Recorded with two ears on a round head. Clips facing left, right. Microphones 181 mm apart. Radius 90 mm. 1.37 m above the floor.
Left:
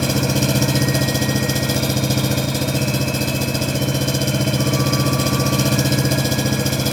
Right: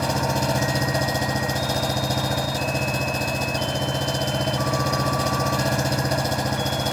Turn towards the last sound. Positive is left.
turn(degrees=45)  # may be behind; listen again after turning